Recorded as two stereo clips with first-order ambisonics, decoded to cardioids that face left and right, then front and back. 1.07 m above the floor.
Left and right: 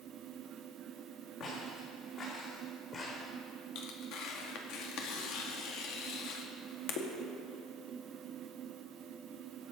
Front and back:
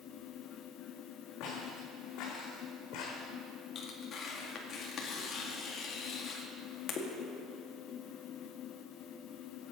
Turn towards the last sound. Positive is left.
turn(degrees=60)